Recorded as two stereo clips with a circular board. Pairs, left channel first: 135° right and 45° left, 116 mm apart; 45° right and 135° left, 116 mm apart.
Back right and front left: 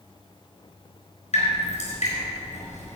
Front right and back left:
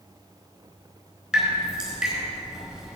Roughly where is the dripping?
Behind right.